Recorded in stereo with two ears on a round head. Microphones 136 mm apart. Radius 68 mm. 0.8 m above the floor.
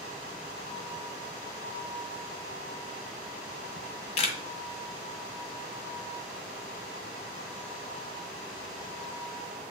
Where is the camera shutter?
40° left (ahead or behind), 1.3 m.